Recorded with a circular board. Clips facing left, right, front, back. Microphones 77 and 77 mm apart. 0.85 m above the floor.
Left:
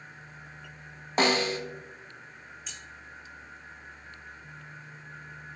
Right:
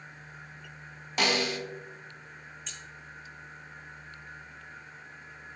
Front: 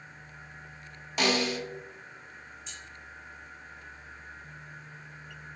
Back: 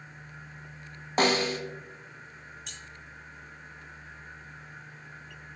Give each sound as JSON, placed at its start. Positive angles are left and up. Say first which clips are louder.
{"t": 1.2, "sound": "a snare drum", "louder": "left 3 dB, back 3 dB", "azimuth_deg": 140, "distance_m": 0.5}
{"t": 2.7, "sound": "keys jangling", "louder": "left 1 dB, even", "azimuth_deg": 175, "distance_m": 0.6}